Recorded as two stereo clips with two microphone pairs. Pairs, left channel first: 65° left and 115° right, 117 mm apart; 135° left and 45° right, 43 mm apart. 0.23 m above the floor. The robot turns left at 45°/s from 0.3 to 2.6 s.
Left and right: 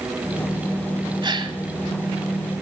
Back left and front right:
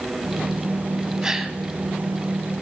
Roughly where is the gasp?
Behind right.